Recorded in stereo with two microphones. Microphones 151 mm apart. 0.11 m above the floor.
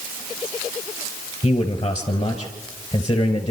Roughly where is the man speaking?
Left.